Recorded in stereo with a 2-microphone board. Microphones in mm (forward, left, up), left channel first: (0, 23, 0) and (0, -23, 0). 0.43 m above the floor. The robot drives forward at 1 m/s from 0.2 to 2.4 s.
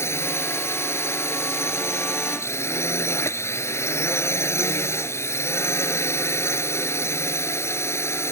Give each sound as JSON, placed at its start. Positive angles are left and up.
{"t": 0.0, "sound": "a drone", "side_deg": 70}